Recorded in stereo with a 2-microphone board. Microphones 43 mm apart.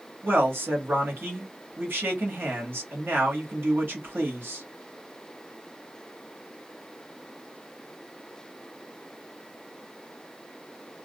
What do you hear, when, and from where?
0.2 s a man speaking: 60° right (ahead or behind), 1.3 m